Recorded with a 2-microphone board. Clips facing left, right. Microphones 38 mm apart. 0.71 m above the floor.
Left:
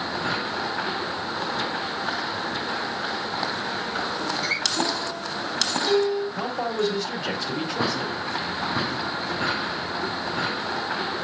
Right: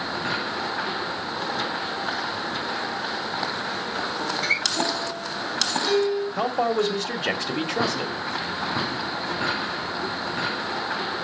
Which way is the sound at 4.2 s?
55° right (ahead or behind).